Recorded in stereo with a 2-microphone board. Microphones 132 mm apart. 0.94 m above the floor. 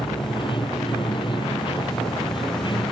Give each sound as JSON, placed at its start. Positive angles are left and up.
{"t": 0.0, "sound": "running water", "side_deg": 40}